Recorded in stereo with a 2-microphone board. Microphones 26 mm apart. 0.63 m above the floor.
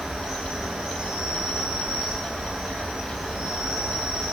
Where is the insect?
65° right (ahead or behind), 0.8 m.